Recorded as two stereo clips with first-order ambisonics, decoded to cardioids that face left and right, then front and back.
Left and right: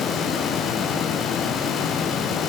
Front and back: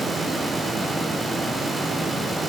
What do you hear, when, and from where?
Only background noise.